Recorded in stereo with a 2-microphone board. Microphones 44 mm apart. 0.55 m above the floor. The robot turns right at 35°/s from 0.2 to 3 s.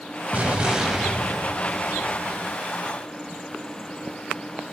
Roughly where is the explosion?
Ahead right.